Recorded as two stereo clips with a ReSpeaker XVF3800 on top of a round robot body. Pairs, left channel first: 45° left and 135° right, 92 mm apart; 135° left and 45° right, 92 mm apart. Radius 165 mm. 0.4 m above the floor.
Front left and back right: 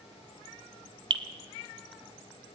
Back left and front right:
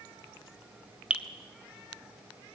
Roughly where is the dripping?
Behind right.